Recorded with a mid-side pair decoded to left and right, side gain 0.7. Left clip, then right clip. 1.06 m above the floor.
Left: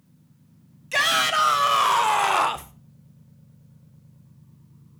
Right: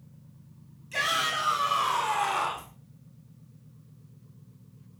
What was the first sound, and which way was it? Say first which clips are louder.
A shout: left 7 dB; 50° left.